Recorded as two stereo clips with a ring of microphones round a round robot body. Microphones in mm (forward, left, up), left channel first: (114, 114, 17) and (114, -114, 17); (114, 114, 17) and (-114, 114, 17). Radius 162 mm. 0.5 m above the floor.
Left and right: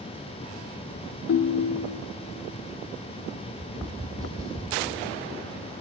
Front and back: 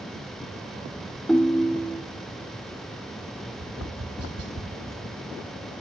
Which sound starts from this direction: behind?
Tapping, at 3.5 s.